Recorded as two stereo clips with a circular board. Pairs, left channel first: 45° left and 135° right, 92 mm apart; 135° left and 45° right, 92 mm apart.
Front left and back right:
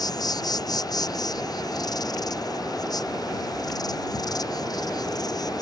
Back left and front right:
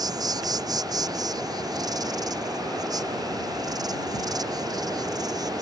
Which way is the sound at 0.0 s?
Straight ahead.